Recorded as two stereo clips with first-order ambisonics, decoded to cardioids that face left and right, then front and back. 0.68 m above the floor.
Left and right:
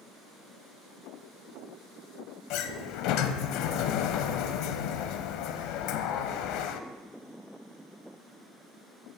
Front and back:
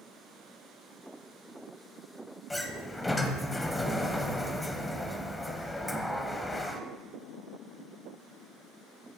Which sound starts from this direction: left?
A sliding door, at 2.5 s.